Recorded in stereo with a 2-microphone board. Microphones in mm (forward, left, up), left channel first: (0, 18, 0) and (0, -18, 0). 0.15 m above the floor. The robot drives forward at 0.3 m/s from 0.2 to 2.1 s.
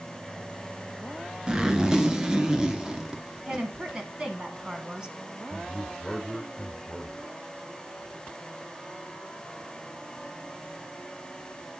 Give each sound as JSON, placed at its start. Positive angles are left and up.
{"t": 1.5, "sound": "a zipper", "side_deg": -20, "distance_m": 1.0}
{"t": 3.5, "sound": "a woman speaking", "side_deg": -20, "distance_m": 1.2}
{"t": 5.5, "sound": "a man speaking", "side_deg": 10, "distance_m": 1.1}